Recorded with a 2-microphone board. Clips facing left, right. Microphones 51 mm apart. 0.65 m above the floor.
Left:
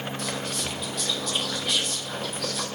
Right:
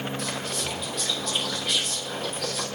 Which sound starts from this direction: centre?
Whispering, at 0.2 s.